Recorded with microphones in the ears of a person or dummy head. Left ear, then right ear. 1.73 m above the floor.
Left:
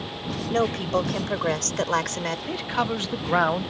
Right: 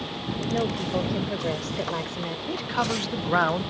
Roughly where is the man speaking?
Centre.